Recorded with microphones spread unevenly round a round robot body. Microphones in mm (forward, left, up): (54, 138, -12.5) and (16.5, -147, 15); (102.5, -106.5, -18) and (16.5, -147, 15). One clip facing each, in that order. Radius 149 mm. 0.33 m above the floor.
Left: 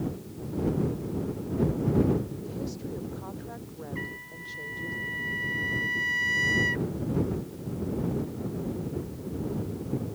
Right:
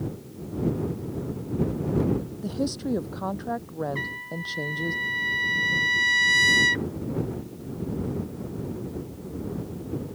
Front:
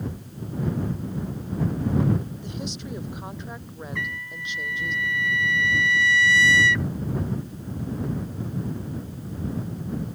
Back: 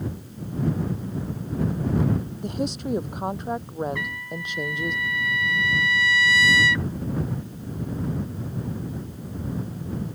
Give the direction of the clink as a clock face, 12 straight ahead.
No clink in this recording.